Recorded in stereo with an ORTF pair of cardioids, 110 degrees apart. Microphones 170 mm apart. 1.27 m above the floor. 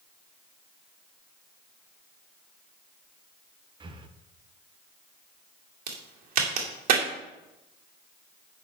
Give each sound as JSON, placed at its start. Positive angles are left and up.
{"t": 3.8, "sound": "breathing", "azimuth_deg": -30, "distance_m": 0.9}
{"t": 5.9, "sound": "a crack", "azimuth_deg": -60, "distance_m": 2.0}